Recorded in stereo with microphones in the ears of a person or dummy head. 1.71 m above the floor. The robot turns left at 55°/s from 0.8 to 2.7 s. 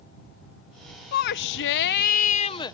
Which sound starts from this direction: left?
A shout, at 1.1 s.